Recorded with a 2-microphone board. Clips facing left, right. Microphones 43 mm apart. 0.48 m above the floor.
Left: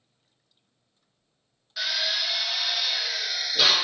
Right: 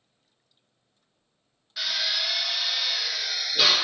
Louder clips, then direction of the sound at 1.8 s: Even; 5° right (ahead or behind).